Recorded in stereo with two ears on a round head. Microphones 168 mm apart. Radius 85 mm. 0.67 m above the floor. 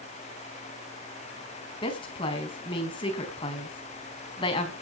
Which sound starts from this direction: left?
A woman speaking, at 1.8 s.